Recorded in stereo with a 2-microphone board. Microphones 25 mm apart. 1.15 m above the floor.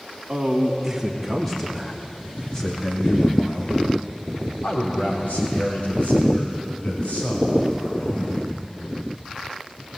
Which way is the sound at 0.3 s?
20° right (ahead or behind).